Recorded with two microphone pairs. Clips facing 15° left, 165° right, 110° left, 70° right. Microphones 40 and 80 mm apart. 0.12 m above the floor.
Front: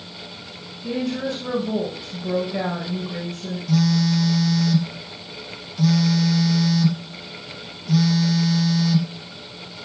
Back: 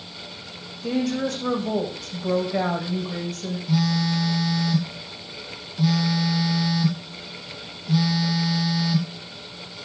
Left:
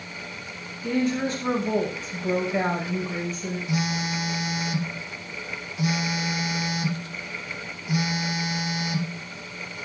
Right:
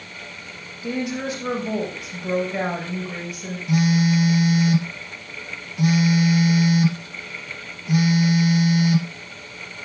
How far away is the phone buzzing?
About 2 m.